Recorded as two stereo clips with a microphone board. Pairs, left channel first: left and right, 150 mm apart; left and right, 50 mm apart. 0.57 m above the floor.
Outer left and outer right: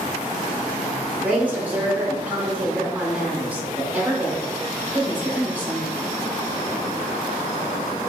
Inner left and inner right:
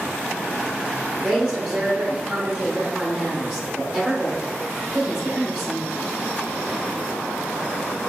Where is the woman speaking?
10° right (ahead or behind), 0.8 m.